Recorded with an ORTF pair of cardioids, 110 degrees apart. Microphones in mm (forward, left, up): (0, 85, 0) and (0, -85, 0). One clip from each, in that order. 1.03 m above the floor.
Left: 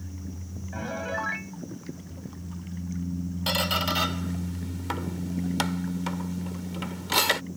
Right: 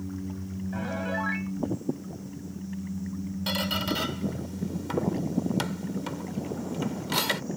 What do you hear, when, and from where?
0.7 s a piano: 5° left
3.5 s a squeak: 25° left